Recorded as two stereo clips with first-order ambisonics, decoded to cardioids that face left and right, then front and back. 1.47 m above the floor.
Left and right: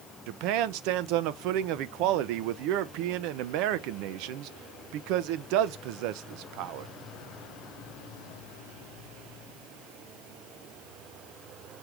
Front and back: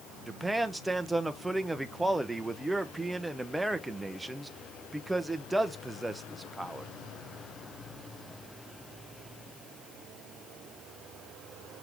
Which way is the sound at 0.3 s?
95° right.